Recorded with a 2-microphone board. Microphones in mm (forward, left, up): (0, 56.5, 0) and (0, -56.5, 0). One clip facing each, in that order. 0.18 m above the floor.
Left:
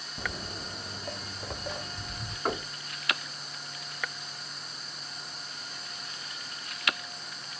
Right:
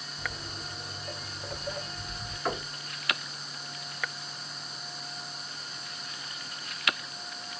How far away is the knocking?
About 1.0 m.